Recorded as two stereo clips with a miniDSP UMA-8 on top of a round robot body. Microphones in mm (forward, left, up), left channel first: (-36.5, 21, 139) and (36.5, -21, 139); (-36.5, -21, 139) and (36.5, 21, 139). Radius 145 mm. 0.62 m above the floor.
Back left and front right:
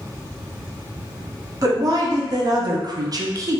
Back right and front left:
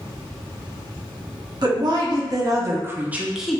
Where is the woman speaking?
10° left, 1.3 m; by 3.6 s 70° right, 0.8 m.